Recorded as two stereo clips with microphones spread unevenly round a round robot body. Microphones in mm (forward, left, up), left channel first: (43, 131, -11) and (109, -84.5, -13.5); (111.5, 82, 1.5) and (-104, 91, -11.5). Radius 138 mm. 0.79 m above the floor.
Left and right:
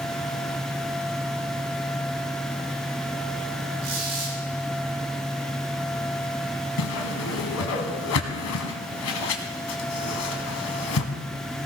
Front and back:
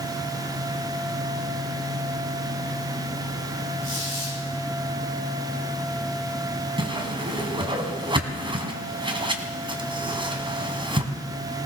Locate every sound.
3.8 s a squeak: 115° right, 7 m
6.8 s a whoosh: 110° left, 1.6 m